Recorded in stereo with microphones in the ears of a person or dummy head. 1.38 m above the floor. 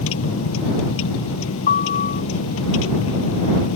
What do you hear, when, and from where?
0.0 s a vehicle: 85° left
1.7 s a piano: 45° left (ahead or behind)